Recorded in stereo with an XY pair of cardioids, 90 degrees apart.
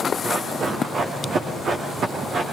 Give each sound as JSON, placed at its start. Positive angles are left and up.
{"t": 0.2, "sound": "running footsteps", "azimuth_deg": -60, "distance_m": 5.5}